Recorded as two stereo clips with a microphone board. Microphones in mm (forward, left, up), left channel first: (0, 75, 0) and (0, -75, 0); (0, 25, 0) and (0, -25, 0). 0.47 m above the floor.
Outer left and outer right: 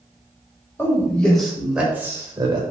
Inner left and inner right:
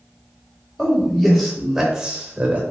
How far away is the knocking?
No knocking in this recording.